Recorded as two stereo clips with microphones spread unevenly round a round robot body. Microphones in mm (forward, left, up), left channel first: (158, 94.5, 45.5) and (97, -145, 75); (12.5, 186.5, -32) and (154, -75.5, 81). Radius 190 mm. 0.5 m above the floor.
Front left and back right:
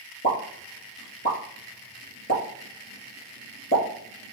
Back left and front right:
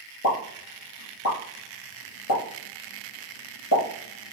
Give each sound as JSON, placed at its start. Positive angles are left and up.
{"t": 0.2, "sound": "a pop", "azimuth_deg": 140, "distance_m": 3.0}